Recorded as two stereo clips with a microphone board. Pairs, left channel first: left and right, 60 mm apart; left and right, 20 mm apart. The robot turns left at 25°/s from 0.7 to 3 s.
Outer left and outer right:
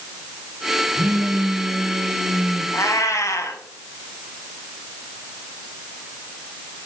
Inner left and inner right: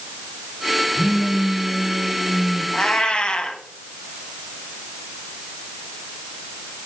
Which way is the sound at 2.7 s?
55° left (ahead or behind).